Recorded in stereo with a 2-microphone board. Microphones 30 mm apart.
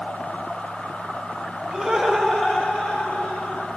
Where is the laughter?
20° right (ahead or behind), 1.6 m; by 3.7 s 55° left (ahead or behind), 2.5 m.